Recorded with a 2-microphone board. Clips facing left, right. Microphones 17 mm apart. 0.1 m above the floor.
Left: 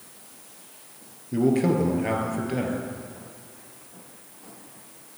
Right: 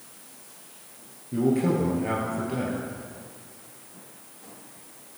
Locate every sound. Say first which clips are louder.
1.3 s a man speaking: left 2 dB; 25° left (ahead or behind), 2 m